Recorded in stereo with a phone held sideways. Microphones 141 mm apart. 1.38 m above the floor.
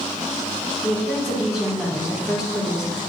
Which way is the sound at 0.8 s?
5° right (ahead or behind).